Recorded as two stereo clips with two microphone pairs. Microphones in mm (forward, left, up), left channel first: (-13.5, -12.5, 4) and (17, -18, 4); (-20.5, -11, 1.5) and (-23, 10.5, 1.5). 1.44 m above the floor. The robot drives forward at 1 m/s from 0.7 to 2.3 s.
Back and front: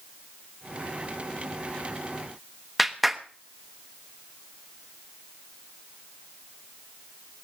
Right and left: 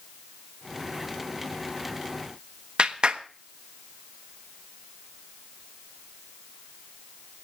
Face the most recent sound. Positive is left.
turn(degrees=75)